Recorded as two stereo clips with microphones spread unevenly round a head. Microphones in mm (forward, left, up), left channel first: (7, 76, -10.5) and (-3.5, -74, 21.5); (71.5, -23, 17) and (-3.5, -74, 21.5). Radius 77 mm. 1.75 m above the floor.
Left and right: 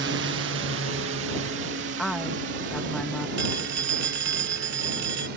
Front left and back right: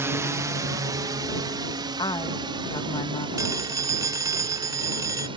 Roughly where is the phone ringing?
Right.